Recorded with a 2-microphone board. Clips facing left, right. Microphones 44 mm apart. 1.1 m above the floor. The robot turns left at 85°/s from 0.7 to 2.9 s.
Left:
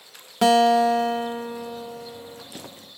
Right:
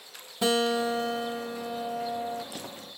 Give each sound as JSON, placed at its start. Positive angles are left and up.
{"t": 0.4, "sound": "a guitar", "azimuth_deg": 90, "distance_m": 1.3}